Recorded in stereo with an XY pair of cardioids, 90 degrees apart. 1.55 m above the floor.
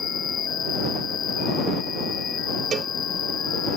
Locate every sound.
0.0 s an insect: 60° left
2.7 s a cowbell: 65° right